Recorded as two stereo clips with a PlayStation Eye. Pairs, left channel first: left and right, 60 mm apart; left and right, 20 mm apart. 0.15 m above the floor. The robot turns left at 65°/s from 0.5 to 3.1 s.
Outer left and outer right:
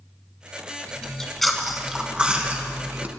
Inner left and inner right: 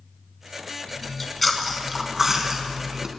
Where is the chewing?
15° left (ahead or behind), 1.6 m; by 3.1 s 25° right (ahead or behind), 1.6 m.